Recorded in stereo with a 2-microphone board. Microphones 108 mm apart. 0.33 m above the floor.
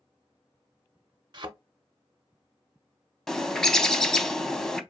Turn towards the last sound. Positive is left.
turn(degrees=5)  # may be behind; listen again after turning